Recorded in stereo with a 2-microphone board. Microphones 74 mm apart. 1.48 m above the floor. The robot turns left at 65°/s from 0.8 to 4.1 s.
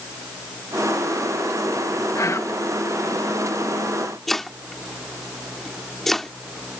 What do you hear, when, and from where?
2.1 s whispering: 55° left; by 2.6 s 25° left
4.3 s chopping: 5° left (ahead or behind)